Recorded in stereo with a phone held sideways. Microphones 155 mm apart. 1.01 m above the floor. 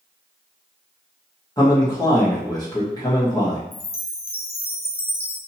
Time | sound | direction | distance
1.6 | a man speaking | 25° left (ahead or behind) | 1.1 m
3.7 | a chime | 70° left (ahead or behind) | 0.5 m